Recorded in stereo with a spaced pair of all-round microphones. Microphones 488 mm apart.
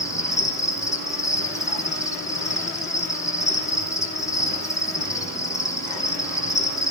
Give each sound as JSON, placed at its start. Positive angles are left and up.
{"t": 0.0, "sound": "an insect", "side_deg": 5, "distance_m": 3.0}